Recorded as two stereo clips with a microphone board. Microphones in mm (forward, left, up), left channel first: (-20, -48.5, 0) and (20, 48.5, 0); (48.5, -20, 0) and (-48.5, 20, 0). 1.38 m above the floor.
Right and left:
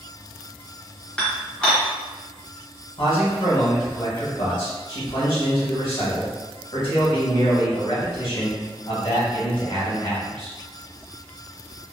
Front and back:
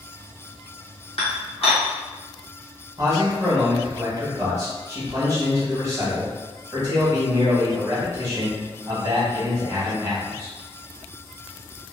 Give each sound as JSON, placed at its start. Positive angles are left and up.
{"t": 1.2, "sound": "dishes clattering", "azimuth_deg": -35, "distance_m": 0.9}
{"t": 3.0, "sound": "a man speaking", "azimuth_deg": -145, "distance_m": 1.2}